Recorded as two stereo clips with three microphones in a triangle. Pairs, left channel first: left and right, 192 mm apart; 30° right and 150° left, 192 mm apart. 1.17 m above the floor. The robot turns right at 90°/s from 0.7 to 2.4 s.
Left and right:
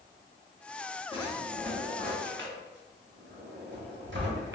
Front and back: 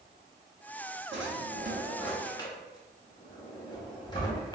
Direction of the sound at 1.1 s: 145° left.